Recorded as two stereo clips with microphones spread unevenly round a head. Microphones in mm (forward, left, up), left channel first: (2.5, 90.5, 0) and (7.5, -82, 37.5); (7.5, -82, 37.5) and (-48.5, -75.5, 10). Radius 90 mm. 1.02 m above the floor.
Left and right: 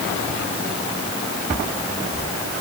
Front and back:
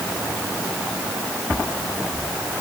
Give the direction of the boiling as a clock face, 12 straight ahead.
I don't hear boiling.